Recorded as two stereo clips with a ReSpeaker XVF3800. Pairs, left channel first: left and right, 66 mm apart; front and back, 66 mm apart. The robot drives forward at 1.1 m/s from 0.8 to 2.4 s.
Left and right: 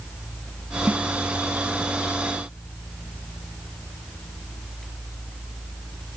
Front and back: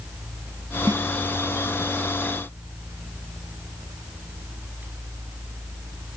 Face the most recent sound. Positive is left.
turn(degrees=-170)